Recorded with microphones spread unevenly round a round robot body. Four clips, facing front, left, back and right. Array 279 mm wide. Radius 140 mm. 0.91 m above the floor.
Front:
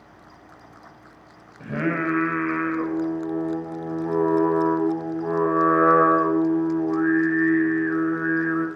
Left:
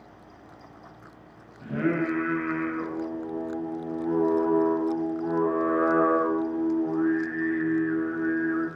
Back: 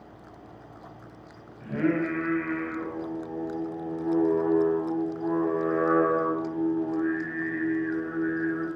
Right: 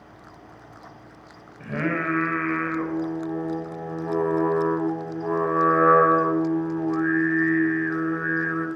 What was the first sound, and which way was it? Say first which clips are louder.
Singing: even, front 1 dB; 30° right.